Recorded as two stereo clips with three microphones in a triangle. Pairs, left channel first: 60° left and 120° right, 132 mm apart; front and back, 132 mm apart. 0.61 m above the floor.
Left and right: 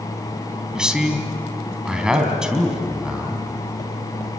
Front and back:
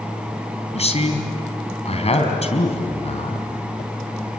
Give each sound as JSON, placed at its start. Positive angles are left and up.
{"t": 0.7, "sound": "a man speaking", "azimuth_deg": -35, "distance_m": 4.0}